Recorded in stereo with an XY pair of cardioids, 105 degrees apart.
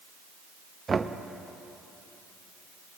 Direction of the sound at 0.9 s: 30° right.